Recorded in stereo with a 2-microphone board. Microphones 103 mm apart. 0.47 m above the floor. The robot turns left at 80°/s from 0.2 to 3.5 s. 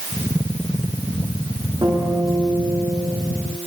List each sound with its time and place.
1.8 s a guitar: 140° right, 9.5 m; by 3.2 s 110° left, 9.5 m